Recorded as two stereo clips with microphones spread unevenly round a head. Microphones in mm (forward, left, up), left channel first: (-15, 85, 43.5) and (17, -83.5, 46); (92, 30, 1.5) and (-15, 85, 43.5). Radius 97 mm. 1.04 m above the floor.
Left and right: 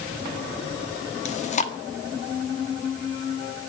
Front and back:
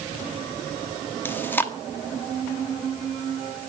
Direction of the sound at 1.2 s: 50° left.